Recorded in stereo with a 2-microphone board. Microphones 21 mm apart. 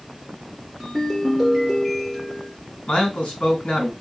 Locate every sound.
0.8 s a ringtone: 5° left (ahead or behind), 2.5 m
2.9 s a man speaking: 70° left (ahead or behind), 2.5 m